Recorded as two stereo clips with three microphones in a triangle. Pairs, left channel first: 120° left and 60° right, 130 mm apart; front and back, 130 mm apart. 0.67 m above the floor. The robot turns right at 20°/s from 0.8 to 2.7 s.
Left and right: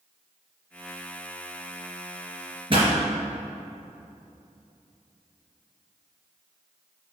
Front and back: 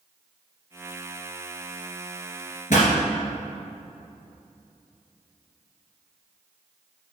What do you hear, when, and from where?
2.7 s a pop: 15° right, 2.5 m